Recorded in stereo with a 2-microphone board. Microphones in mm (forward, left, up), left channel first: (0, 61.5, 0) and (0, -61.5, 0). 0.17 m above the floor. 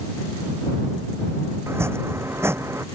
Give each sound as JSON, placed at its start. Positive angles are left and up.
{"t": 1.7, "sound": "chopping", "side_deg": -20}